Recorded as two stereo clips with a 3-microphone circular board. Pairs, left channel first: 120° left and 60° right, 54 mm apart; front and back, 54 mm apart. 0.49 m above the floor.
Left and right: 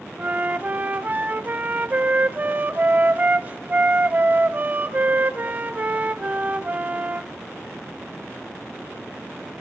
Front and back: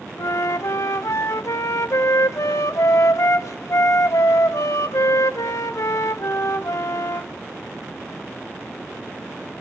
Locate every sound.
0.2 s a flute: 5° right, 0.6 m